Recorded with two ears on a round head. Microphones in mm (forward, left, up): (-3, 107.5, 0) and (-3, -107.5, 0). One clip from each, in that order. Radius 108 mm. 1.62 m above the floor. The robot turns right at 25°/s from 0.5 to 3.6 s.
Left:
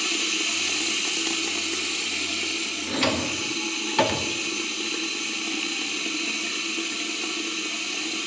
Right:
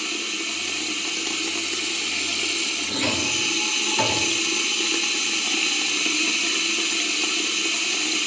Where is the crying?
I don't hear crying.